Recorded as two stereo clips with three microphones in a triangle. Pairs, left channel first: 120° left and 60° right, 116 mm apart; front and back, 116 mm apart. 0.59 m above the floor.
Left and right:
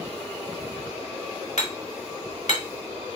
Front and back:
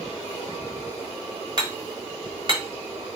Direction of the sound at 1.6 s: 135° left.